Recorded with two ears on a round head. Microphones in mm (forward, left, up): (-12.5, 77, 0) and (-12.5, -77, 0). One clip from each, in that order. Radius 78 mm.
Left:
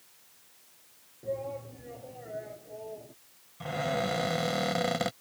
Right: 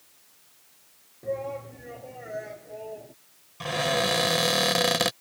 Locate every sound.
1.2 s a shout: 55° right (ahead or behind); by 3.1 s 65° right (ahead or behind)
3.6 s a cupboard door: 65° right (ahead or behind)